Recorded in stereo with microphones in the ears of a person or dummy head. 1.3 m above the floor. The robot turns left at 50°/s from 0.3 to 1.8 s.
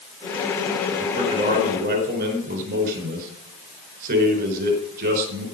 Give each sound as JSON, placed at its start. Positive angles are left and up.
{"t": 1.0, "sound": "a man speaking", "azimuth_deg": -5, "distance_m": 4.5}